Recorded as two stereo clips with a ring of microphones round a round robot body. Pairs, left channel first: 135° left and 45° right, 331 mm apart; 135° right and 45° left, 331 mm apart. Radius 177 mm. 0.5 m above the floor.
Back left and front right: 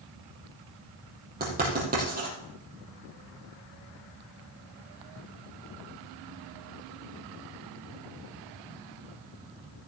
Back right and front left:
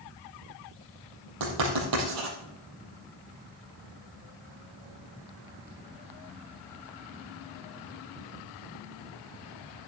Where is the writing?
20° left, 5 m.